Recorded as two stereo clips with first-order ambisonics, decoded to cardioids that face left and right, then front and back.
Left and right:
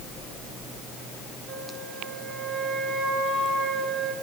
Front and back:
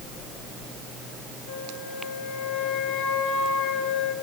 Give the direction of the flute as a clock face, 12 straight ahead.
1 o'clock.